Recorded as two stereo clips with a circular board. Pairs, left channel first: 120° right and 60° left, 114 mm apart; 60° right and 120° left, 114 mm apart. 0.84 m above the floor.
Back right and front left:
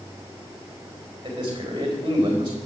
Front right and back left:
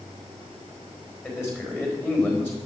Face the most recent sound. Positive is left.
turn(degrees=15)